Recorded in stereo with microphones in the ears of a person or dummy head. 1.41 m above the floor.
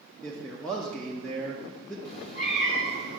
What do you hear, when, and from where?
0.2 s a man speaking: 10° left (ahead or behind), 0.7 m
2.0 s a cat meowing: 30° left (ahead or behind), 1.2 m